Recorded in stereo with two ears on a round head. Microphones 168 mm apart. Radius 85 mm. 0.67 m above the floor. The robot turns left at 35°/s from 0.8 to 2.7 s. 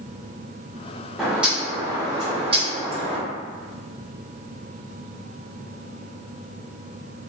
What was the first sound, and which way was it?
A bird, straight ahead.